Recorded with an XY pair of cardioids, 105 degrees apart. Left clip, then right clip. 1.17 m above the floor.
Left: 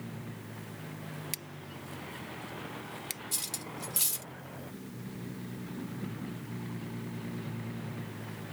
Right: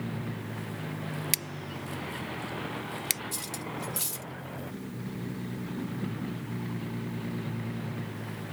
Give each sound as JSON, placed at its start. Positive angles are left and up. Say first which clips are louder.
{"t": 0.0, "sound": "a vehicle", "louder": "right 7 dB", "azimuth_deg": -40}
{"t": 1.3, "sound": "scissors", "louder": "right 9 dB", "azimuth_deg": -60}
{"t": 3.3, "sound": "cutlery clinking", "louder": "right 2 dB", "azimuth_deg": 25}